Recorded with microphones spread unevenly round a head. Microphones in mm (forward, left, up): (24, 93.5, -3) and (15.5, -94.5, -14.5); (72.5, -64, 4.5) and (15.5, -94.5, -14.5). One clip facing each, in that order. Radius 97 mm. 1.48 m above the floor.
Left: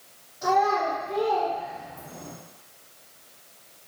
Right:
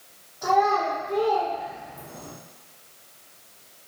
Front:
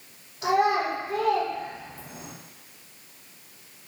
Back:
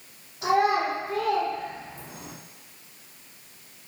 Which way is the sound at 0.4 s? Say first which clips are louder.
Right 1 dB, even; 150° left.